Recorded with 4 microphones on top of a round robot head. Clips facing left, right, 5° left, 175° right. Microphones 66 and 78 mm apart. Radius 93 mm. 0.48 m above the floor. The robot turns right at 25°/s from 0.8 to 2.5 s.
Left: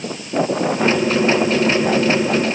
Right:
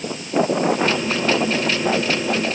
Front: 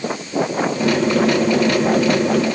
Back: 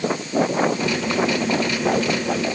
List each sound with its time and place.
Only background noise.